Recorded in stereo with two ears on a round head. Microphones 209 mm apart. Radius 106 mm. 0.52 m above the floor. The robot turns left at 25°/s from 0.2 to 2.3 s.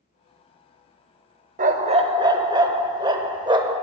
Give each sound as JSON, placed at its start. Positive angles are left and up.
{"t": 1.6, "sound": "a dog barking", "side_deg": -35, "distance_m": 0.7}